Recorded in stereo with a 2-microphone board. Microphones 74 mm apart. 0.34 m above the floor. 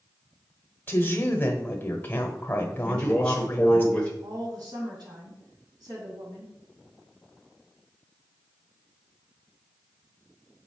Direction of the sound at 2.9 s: 15° left (ahead or behind).